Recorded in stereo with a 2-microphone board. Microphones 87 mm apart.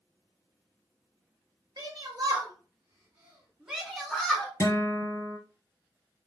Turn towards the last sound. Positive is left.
turn(degrees=45)  # may be behind; listen again after turning